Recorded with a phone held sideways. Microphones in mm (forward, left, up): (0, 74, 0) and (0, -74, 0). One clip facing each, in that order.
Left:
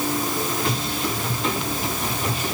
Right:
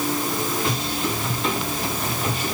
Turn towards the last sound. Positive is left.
No sound to turn to.